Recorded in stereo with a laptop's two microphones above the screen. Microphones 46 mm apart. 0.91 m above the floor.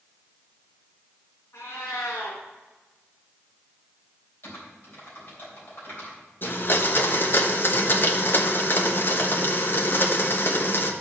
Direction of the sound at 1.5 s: 60° left (ahead or behind).